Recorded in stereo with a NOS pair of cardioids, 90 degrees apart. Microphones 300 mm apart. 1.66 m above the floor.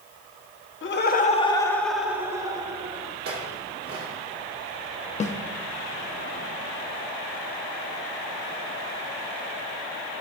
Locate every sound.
0.8 s laughter: 40° left, 1.2 m; by 3.1 s 20° right, 2 m
3.2 s a clink: 50° right, 3 m
5.2 s a snare drum: 25° left, 0.8 m